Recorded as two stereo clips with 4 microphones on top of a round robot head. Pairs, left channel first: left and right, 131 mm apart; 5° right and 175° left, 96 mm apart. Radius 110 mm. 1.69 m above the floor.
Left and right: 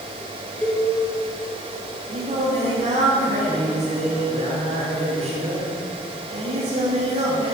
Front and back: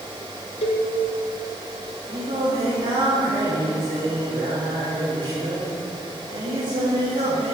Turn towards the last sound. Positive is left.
turn(degrees=-125)